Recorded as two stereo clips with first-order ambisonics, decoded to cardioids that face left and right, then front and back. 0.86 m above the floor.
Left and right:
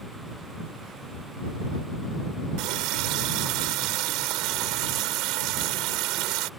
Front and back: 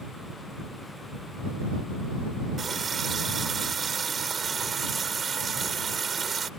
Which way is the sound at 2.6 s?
110° right.